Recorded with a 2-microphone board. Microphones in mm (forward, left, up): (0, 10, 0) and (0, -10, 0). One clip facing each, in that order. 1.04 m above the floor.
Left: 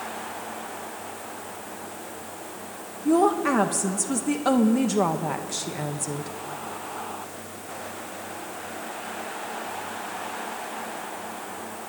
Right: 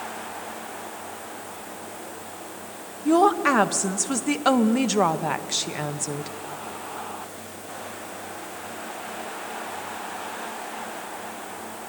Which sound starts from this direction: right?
A woman speaking, at 3.0 s.